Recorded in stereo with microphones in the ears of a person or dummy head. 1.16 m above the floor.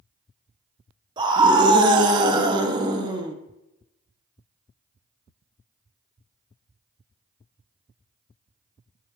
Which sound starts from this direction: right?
A scream, at 1.2 s.